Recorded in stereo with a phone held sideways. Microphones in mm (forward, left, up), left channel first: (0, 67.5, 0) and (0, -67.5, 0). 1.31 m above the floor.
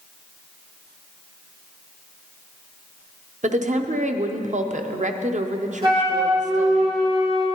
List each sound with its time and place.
3.4 s a woman speaking: 65° right (ahead or behind), 0.6 m
5.8 s a flute: 40° right (ahead or behind), 2.5 m